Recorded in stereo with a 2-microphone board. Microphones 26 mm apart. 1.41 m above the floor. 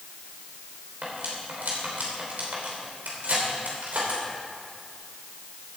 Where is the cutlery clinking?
75° right (ahead or behind), 3 m.